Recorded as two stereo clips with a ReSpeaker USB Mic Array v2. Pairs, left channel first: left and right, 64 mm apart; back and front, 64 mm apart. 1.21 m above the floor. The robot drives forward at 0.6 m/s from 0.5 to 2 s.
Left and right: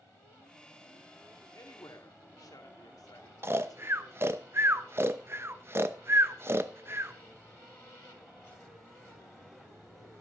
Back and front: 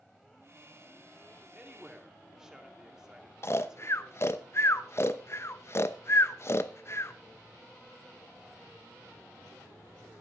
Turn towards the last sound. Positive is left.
turn(degrees=-140)